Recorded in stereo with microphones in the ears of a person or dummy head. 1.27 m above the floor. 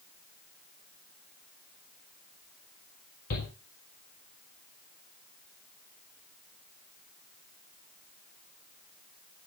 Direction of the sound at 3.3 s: 60° left (ahead or behind).